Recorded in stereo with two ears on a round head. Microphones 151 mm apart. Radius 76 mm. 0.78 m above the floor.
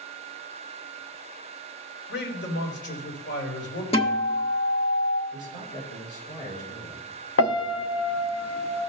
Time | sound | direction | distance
2.1 | a man speaking | 75° left (ahead or behind) | 3.5 m
3.9 | a guitar | 30° left (ahead or behind) | 1.4 m
5.3 | a man speaking | 50° left (ahead or behind) | 4 m
7.4 | a piano | 80° left | 0.6 m